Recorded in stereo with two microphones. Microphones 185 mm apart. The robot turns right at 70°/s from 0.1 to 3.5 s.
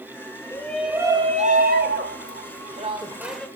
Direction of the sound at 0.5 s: 160° left.